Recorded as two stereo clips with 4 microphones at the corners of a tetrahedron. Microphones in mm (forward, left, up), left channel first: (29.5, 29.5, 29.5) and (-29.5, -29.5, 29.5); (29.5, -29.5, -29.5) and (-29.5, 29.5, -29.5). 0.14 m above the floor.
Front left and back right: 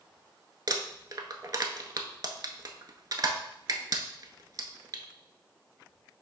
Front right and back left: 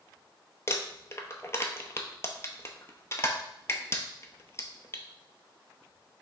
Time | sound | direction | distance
0.7 | crumpling | 95° right | 0.6 m